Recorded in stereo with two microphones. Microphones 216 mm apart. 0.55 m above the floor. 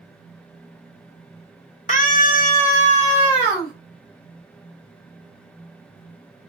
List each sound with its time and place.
1.9 s a scream: 40° left (ahead or behind), 1.3 m; by 3.7 s 25° left (ahead or behind), 2 m